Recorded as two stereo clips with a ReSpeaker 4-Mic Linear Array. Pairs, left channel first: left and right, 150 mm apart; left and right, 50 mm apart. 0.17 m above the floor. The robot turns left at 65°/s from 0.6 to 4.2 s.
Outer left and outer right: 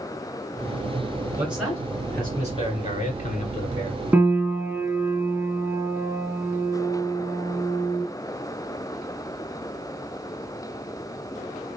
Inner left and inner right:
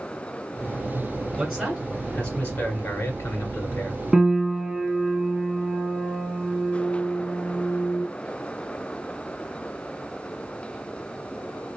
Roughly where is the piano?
Centre.